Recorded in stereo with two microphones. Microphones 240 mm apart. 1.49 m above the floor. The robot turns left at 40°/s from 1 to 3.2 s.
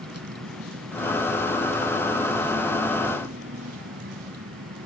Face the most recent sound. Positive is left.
turn(degrees=-85)